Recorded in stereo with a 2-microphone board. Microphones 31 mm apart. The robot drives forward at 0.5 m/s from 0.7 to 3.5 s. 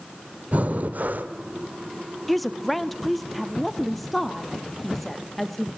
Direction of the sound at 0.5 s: 50° right (ahead or behind).